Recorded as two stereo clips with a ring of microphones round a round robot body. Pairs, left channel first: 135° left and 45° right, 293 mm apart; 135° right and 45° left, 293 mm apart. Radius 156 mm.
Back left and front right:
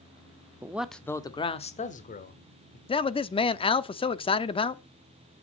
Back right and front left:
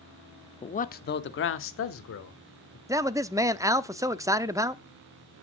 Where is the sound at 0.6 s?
110° right, 0.9 m; by 2.8 s 170° right, 2 m.